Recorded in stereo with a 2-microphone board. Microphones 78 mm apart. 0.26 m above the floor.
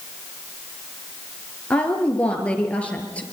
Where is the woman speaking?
15° left (ahead or behind), 5 m.